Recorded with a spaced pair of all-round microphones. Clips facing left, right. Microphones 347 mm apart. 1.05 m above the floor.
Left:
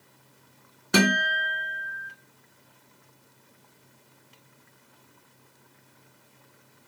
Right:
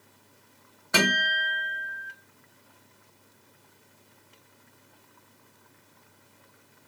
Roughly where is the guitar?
Left.